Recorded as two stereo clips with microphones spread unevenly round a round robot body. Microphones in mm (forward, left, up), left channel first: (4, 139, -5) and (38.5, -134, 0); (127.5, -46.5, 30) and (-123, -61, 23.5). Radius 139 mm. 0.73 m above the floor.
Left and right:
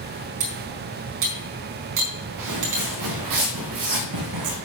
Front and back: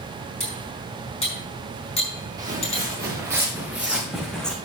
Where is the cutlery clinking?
65° right, 4.5 m.